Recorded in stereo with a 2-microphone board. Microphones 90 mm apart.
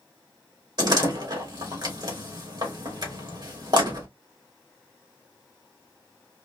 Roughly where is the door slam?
Right.